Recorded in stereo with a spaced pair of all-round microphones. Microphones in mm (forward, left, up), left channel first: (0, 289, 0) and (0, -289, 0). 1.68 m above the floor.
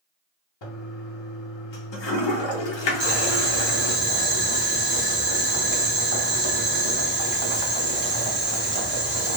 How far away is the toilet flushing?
About 0.6 m.